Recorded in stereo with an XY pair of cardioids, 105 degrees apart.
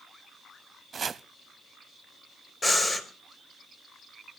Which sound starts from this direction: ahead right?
Chopping, at 0.9 s.